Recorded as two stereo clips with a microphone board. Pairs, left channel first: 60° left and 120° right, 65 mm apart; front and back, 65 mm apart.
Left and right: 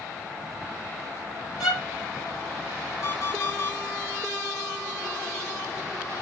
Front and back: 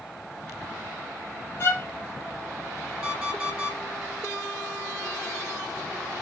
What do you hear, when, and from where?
1.6 s a violin: 55° left, 3.5 m
3.0 s an alarm clock: 105° left, 1.4 m